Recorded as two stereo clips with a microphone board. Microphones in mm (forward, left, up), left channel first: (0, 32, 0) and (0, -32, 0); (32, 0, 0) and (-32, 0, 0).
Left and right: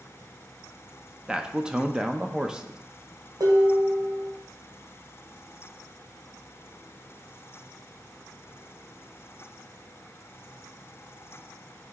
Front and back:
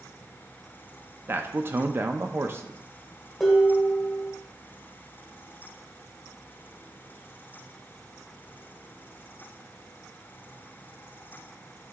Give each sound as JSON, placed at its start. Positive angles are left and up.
{"t": 1.3, "sound": "a man speaking", "azimuth_deg": -160, "distance_m": 0.5}
{"t": 3.4, "sound": "dishes clattering", "azimuth_deg": -90, "distance_m": 1.7}